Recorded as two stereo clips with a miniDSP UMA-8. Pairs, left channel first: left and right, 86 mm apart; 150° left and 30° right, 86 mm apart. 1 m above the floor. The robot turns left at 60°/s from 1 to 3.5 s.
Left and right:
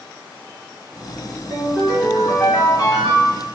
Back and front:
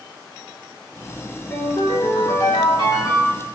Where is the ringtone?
150° right, 1.7 m; by 3.5 s 90° left, 1.7 m.